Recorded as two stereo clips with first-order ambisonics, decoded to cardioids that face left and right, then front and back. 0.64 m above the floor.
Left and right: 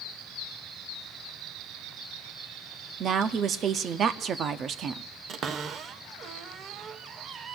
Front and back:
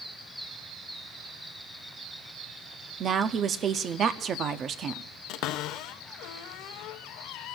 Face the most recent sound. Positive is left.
turn(degrees=-30)